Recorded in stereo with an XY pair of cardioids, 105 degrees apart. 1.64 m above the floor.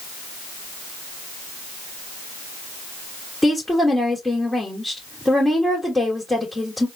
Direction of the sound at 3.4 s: 10° left.